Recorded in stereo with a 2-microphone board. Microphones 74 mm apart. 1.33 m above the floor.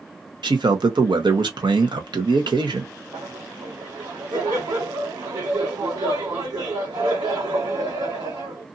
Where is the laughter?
70° right (ahead or behind), 1.6 m.